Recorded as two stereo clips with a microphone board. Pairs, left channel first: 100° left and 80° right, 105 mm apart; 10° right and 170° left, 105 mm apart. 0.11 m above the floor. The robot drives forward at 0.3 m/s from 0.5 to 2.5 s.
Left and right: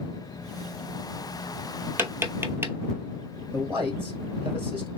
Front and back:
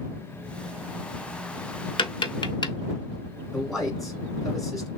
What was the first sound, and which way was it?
Tapping, 15° right.